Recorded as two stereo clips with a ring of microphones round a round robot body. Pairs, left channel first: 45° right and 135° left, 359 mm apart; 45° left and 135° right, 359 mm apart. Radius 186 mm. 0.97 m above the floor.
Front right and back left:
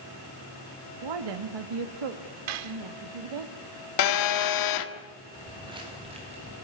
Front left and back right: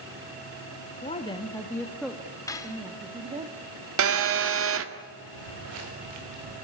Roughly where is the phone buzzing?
Right.